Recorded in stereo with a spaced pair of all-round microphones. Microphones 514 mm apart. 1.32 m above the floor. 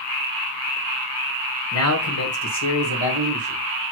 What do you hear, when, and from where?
1.7 s a man speaking: 25° left (ahead or behind), 0.9 m; by 3.6 s 70° left (ahead or behind), 1.5 m